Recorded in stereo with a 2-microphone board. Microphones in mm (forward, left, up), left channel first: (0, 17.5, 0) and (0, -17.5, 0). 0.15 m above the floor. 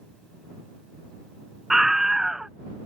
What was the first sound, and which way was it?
A scream, 10° right (ahead or behind).